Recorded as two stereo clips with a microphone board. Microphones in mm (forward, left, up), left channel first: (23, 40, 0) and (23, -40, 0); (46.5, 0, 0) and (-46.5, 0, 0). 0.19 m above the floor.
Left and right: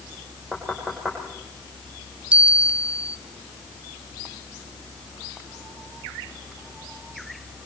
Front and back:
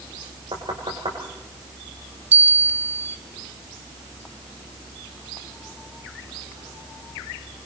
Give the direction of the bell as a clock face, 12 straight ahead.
5 o'clock.